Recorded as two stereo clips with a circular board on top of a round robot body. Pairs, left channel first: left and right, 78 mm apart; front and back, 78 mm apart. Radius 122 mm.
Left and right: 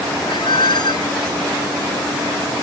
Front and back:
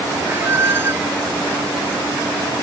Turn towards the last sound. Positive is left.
turn(degrees=120)